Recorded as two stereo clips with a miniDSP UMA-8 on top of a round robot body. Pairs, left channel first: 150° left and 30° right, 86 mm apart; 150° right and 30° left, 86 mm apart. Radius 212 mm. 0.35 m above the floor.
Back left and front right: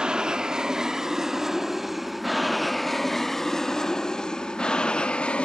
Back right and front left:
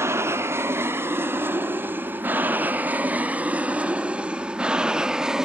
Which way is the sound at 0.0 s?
45° left.